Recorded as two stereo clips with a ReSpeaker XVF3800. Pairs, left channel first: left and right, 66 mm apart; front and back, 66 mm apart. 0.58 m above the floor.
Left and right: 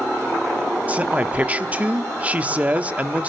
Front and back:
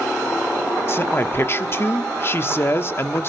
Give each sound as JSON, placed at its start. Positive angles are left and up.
{"t": 0.9, "sound": "a man speaking", "azimuth_deg": -30, "distance_m": 1.1}